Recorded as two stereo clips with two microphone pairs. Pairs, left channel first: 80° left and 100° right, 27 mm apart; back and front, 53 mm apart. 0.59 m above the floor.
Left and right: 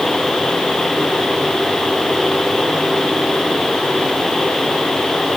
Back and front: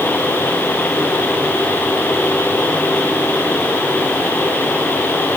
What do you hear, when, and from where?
Only background noise.